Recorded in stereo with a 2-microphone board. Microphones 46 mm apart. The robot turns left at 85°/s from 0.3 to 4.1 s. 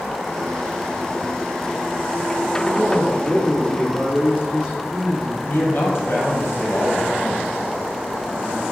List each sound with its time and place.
2.6 s a man speaking: 5° left (ahead or behind), 1.5 m; by 5.3 s 20° left (ahead or behind), 1.5 m
5.4 s a man speaking: 55° left (ahead or behind), 2.5 m